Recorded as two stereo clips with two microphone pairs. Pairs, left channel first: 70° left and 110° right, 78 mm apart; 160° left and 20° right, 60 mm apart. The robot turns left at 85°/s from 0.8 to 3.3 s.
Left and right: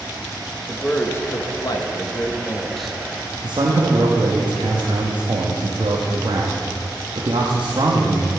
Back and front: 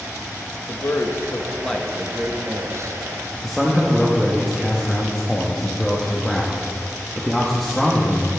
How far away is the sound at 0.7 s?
About 0.7 m.